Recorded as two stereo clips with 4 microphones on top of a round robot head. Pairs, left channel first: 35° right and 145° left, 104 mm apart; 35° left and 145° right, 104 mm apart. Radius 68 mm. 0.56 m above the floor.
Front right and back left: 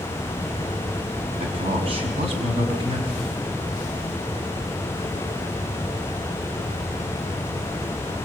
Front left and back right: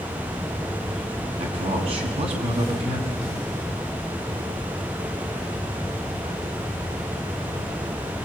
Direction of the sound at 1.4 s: 175° right.